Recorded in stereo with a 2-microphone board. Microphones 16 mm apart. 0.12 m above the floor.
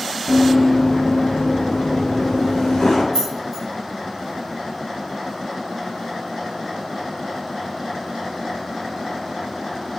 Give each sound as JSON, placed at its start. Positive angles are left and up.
{"t": 0.3, "sound": "running footsteps", "side_deg": 25, "distance_m": 0.6}
{"t": 3.1, "sound": "keys jangling", "side_deg": 30, "distance_m": 1.3}